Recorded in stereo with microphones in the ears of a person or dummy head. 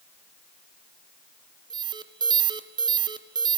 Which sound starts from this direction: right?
An alarm, at 1.7 s.